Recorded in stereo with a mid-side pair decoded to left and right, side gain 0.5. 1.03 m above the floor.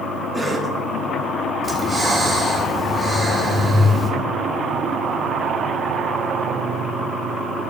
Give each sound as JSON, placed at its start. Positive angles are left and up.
{"t": 0.3, "sound": "a cough", "azimuth_deg": -15, "distance_m": 1.7}
{"t": 1.6, "sound": "breathing", "azimuth_deg": -25, "distance_m": 1.3}